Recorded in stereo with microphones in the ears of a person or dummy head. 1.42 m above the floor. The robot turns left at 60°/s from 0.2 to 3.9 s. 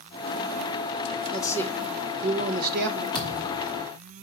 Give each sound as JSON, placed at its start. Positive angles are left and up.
{"t": 1.3, "sound": "a man speaking", "azimuth_deg": 25, "distance_m": 1.7}
{"t": 3.1, "sound": "a thud", "azimuth_deg": -140, "distance_m": 3.0}